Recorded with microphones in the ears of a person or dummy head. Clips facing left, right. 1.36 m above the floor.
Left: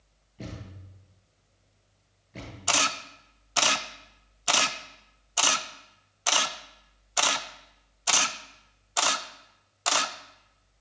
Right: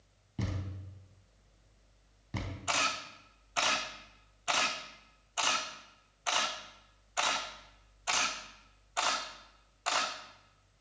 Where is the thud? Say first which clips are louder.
Right 2 dB; 70° right (ahead or behind), 4 m.